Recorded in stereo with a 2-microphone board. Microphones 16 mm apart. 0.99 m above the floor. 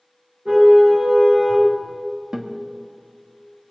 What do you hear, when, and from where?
0.5 s a car horn: 80° right, 6 m; by 1.7 s 90° right, 6.5 m
2.3 s a guitar: 40° right (ahead or behind), 1.6 m